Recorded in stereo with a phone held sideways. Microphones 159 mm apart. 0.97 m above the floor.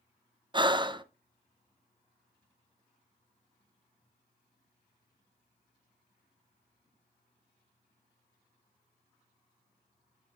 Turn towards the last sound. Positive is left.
turn(degrees=-30)  # may be behind; listen again after turning